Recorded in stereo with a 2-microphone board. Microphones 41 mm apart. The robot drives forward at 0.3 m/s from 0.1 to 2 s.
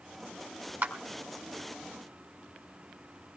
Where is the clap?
60° right (ahead or behind), 2 m.